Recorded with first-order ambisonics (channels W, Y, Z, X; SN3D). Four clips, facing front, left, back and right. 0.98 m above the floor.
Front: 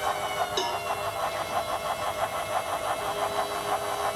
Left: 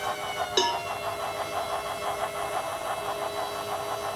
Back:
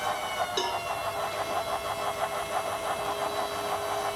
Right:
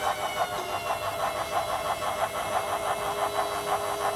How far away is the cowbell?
About 0.5 m.